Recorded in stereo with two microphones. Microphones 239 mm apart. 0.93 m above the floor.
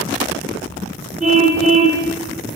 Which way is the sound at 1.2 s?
30° right (ahead or behind).